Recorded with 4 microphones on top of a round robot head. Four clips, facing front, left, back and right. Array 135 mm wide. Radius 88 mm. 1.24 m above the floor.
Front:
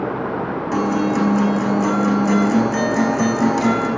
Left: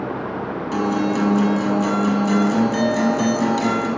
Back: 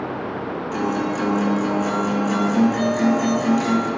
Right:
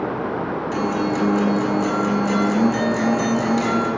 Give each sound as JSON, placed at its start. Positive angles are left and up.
{"t": 0.7, "sound": "a guitar", "azimuth_deg": 25, "distance_m": 6.0}